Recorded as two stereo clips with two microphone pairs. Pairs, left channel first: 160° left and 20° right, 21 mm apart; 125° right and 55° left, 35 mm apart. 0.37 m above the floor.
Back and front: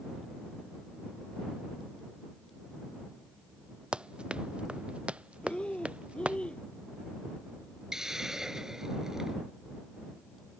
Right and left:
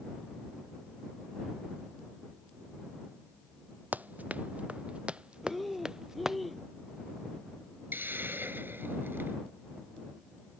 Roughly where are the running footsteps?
Ahead.